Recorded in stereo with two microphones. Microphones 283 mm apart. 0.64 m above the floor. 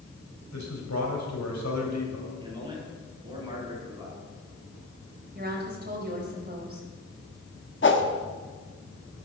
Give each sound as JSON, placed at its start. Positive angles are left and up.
{"t": 0.5, "sound": "a man speaking", "side_deg": 70, "distance_m": 3.5}
{"t": 2.4, "sound": "a man speaking", "side_deg": -15, "distance_m": 7.0}
{"t": 5.3, "sound": "a woman speaking", "side_deg": -35, "distance_m": 3.5}
{"t": 7.8, "sound": "a whoosh", "side_deg": 45, "distance_m": 1.2}